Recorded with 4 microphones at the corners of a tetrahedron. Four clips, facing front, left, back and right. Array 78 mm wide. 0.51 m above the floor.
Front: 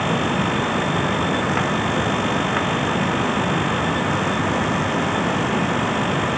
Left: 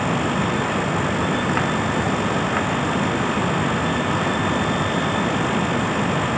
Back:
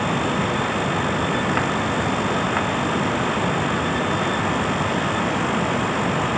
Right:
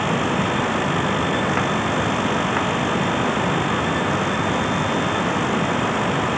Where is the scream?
No scream in this recording.